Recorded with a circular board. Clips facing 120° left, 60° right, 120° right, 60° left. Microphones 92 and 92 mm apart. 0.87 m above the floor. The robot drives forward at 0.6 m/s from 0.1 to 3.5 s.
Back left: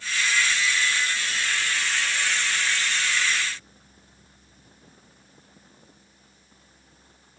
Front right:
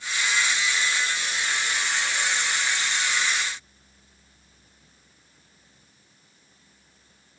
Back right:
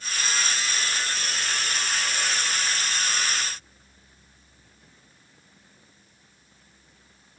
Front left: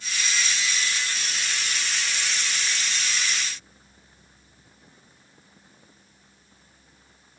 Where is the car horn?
No car horn in this recording.